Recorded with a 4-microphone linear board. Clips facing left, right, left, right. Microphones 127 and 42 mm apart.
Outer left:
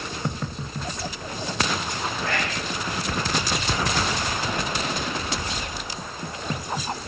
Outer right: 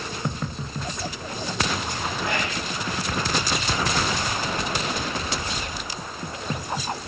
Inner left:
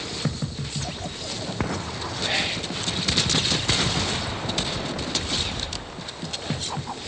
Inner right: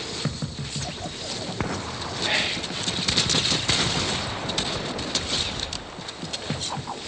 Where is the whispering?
20° right (ahead or behind), 0.7 m.